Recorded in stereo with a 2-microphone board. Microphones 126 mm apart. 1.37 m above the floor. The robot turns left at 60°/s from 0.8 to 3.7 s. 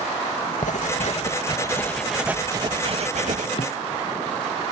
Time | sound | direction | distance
0.6 | writing | 75° left | ?
3.6 | a thud | 45° left (ahead or behind) | ?